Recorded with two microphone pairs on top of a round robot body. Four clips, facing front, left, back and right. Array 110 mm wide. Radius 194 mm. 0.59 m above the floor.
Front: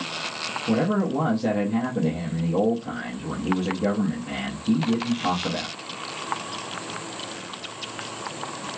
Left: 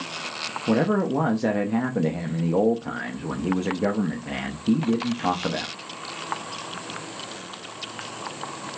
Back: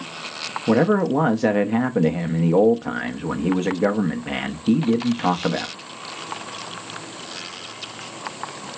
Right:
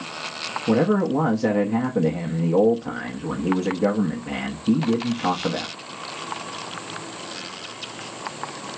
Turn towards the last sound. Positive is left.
turn(degrees=180)